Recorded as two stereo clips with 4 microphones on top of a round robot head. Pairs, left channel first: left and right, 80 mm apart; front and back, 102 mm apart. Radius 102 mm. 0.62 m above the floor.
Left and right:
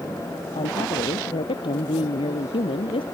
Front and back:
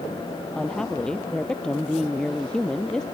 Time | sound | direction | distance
0.6 | a woman speaking | 85° left | ?